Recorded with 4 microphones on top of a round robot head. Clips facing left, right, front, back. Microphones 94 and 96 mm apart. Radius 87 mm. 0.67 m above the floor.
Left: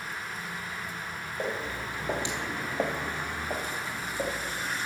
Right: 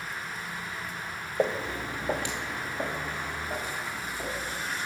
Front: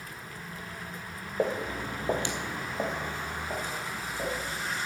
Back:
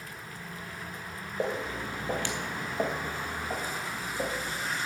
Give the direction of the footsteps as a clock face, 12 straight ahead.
2 o'clock.